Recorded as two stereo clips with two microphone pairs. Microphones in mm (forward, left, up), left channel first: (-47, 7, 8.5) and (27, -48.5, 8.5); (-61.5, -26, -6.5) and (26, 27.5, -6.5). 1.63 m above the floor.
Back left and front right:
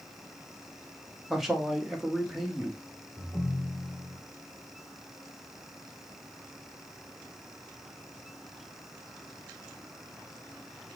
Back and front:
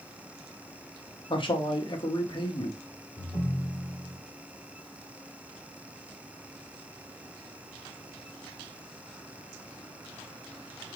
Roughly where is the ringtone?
Behind right.